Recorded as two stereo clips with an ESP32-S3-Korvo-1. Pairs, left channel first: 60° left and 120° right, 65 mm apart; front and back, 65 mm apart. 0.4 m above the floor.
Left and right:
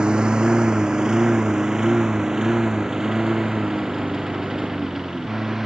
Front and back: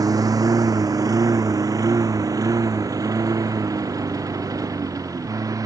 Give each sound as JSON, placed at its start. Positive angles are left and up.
{"t": 0.0, "sound": "a lawn mower", "azimuth_deg": 160}